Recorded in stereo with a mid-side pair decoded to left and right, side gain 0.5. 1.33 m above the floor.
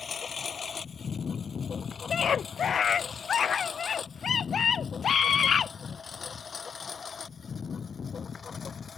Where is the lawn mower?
40° left; by 9.0 s 35° left.